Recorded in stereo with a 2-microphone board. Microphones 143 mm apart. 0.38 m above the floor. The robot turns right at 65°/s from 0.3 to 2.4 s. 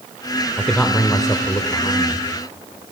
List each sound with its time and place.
0.6 s a man speaking: 5° left, 0.9 m; by 2.2 s 110° left, 0.9 m